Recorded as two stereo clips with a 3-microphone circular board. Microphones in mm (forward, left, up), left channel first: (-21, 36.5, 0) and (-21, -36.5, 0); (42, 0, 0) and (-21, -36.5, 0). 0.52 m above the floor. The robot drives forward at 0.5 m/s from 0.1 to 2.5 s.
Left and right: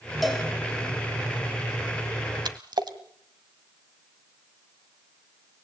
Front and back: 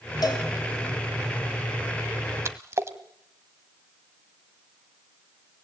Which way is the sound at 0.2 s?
Straight ahead.